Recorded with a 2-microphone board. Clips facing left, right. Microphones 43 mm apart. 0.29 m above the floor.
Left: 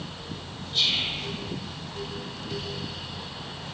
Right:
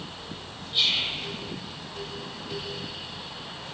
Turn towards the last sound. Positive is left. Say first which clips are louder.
# right 1 dB
turn(degrees=-15)  # may be behind; listen again after turning